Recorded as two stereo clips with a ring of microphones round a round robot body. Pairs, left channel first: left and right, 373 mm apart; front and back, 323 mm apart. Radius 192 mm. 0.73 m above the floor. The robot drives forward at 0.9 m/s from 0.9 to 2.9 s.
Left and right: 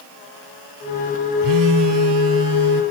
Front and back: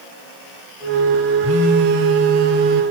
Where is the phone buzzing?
125° right, 1.3 m; by 2.8 s 155° right, 2 m.